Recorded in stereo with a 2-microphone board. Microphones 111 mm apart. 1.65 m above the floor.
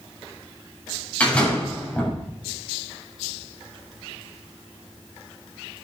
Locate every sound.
1.2 s a door slam: 10° left (ahead or behind), 6.5 m